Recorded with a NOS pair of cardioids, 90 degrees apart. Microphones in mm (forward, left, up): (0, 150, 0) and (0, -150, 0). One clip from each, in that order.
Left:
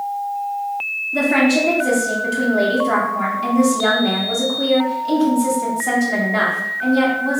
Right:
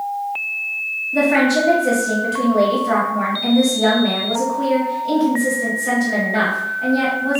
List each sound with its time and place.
1.1 s a woman speaking: straight ahead, 0.8 m